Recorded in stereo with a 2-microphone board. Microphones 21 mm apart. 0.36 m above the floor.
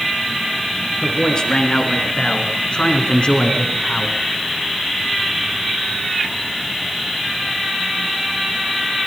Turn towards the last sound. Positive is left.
turn(degrees=60)  # may be behind; listen again after turning